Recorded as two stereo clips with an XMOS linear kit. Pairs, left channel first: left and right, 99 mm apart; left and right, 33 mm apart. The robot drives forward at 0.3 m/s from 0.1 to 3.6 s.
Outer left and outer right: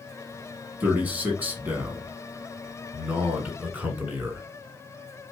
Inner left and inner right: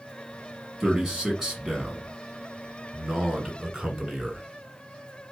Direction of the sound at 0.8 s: 20° right (ahead or behind).